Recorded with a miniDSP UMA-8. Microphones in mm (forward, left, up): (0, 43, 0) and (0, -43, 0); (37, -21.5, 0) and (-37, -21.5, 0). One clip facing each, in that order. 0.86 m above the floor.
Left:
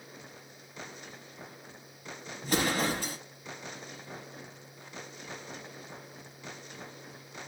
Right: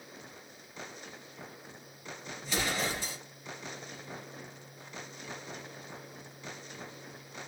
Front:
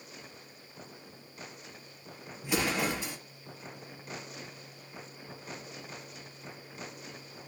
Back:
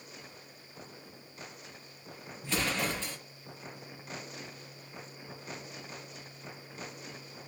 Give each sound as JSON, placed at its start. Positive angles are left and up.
{"t": 2.4, "sound": "an explosion", "azimuth_deg": 75, "distance_m": 0.8}